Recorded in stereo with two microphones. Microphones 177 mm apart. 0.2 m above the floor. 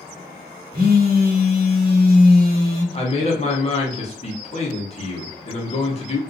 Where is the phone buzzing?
60° right (ahead or behind), 1.0 m.